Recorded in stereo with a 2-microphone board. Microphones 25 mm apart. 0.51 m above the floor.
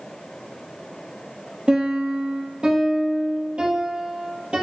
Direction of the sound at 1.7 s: 50° right (ahead or behind).